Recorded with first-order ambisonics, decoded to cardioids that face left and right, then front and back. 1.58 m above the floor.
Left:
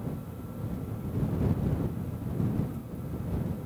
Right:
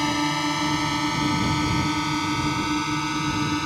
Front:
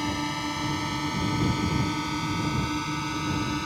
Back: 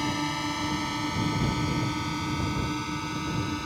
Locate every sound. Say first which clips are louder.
0.0 s a drone: right 19 dB, even; 95° right; by 3.7 s 80° right